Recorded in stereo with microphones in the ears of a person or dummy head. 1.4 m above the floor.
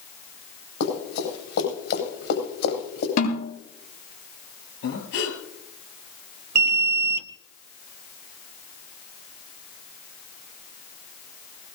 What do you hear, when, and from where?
0.8 s running footsteps: 70° left (ahead or behind), 7.5 m; by 3.1 s 60° left (ahead or behind), 9 m
3.2 s a snare drum: 50° left (ahead or behind), 8 m
4.8 s breathing: 75° left (ahead or behind), 7.5 m
6.5 s an alarm: 55° right (ahead or behind), 0.7 m